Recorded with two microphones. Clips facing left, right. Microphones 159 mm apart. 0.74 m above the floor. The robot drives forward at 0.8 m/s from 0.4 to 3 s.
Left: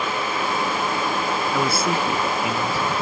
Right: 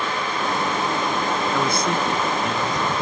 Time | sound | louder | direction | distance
1.5 | a man speaking | even | 5° left (ahead or behind) | ?